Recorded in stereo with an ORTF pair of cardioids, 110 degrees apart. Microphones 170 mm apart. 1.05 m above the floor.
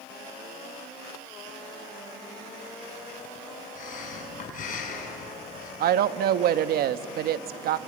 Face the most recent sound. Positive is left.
turn(degrees=-65)